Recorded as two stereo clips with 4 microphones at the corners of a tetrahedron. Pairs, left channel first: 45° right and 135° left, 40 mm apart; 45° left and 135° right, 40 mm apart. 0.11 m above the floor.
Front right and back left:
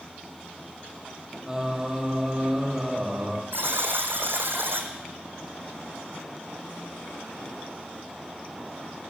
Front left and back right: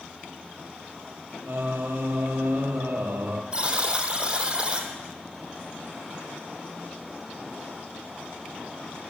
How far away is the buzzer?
About 1.8 m.